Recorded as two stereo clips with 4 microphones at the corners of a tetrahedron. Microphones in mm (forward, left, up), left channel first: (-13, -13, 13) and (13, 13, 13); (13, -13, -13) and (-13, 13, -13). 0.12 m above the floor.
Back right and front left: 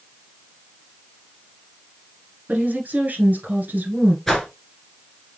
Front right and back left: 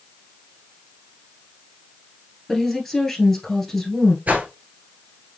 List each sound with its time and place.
2.5 s a woman speaking: 35° left, 1.7 m
4.3 s a whoosh: 150° left, 1.3 m